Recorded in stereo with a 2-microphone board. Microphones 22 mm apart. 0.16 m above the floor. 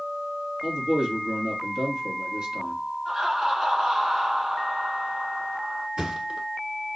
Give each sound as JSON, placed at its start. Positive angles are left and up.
{"t": 0.6, "sound": "a man speaking", "side_deg": -55, "distance_m": 2.5}
{"t": 3.0, "sound": "laughter", "side_deg": -30, "distance_m": 2.0}
{"t": 6.0, "sound": "a thud", "side_deg": -45, "distance_m": 1.0}